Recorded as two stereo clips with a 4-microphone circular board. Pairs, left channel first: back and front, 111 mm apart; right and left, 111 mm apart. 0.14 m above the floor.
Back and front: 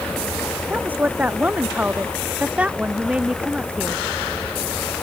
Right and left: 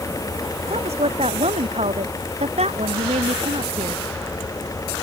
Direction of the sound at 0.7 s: 75° left.